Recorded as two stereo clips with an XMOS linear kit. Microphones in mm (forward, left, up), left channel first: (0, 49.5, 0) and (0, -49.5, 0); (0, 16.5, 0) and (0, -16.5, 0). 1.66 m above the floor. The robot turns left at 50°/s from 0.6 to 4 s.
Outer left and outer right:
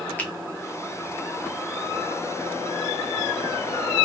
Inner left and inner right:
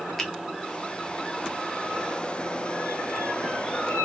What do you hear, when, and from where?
0.2 s a finger snap: 20° left (ahead or behind), 1.0 m